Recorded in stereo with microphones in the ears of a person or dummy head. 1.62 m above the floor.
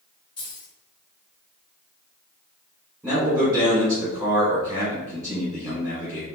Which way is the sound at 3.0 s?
10° right (ahead or behind).